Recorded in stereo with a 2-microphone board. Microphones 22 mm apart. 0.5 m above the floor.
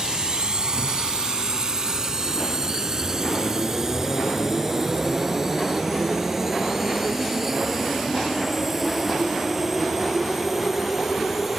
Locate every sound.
0.0 s a drone: 40° right (ahead or behind); by 11.6 s 10° right (ahead or behind)